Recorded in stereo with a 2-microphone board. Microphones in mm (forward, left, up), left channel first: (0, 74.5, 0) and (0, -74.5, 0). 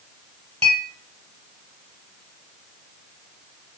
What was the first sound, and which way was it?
A clink, 40° right (ahead or behind).